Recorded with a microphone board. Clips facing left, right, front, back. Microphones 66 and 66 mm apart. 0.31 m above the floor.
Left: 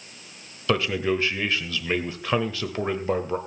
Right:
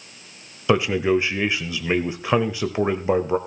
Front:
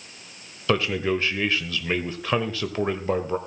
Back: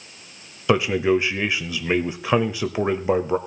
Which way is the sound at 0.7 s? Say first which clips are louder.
Right 5 dB, back 5 dB; 130° right.